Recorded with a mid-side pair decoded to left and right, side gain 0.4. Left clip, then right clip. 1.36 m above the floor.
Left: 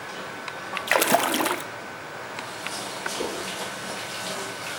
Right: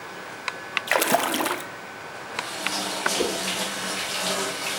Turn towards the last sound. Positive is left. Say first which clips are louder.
# right 4 dB
turn(degrees=-50)